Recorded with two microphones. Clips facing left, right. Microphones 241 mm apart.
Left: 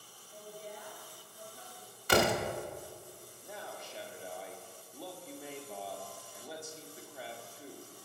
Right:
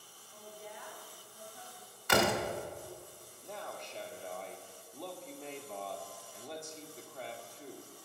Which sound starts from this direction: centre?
A man speaking, at 3.4 s.